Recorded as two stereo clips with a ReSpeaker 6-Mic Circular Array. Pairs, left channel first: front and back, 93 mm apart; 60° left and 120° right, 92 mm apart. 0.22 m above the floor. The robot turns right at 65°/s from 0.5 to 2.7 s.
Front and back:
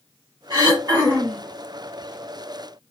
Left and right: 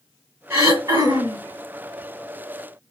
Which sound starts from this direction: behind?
Throat clearing, at 0.5 s.